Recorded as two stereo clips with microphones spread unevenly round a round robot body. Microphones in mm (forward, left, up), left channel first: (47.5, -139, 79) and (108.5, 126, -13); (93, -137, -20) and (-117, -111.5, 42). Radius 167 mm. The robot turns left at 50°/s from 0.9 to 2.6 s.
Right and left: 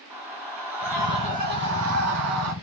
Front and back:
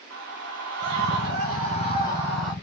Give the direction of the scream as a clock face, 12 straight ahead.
7 o'clock.